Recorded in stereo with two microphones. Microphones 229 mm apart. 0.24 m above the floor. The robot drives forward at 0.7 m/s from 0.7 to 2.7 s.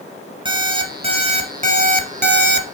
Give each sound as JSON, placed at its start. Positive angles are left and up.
{"t": 0.5, "sound": "an alarm clock", "side_deg": -20, "distance_m": 1.6}